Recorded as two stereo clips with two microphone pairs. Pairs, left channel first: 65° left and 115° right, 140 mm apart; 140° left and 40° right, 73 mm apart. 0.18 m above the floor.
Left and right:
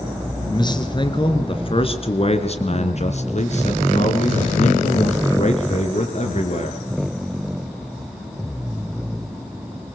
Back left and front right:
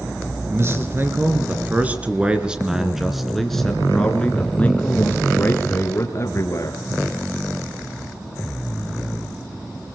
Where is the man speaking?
10° left, 2.5 m; by 6.8 s 95° left, 3 m.